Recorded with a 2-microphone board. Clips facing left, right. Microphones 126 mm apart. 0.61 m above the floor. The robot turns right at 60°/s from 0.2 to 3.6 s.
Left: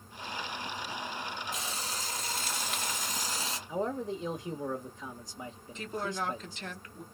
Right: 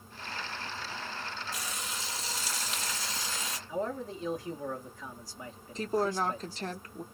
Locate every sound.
1.5 s frying: 25° left, 1.1 m; by 3.6 s 150° left, 1.1 m
3.7 s a man speaking: 25° left (ahead or behind), 1.1 m
5.8 s a woman speaking: 40° right (ahead or behind), 0.8 m